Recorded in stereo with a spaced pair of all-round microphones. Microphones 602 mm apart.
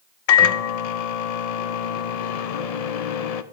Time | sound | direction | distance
0.3 | a microwave | 80° left | 0.6 m